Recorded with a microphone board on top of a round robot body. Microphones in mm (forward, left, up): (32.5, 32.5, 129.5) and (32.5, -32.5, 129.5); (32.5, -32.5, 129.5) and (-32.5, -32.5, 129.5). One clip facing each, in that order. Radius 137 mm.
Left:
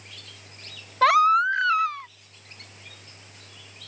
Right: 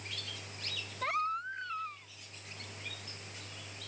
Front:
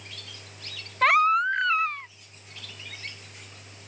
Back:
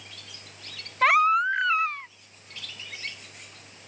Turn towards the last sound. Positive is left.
turn(degrees=90)